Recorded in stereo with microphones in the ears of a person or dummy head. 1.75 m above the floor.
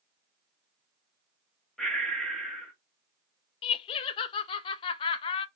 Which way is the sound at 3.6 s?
30° left (ahead or behind).